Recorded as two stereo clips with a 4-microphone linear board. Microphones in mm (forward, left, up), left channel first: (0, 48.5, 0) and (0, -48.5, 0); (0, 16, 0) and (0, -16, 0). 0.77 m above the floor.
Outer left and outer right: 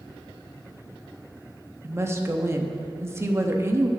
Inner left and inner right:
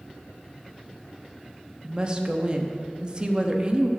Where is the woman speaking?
25° right (ahead or behind), 0.9 m.